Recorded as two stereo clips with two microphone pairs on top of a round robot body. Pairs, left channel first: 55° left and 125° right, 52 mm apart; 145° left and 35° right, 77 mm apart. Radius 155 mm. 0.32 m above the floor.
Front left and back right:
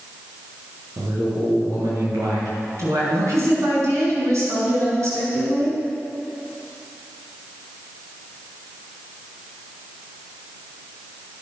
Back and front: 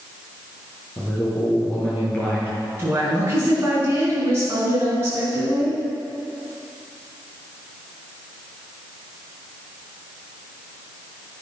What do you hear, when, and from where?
1.0 s a man speaking: 140° right, 6 m
2.8 s a woman speaking: 95° right, 5.5 m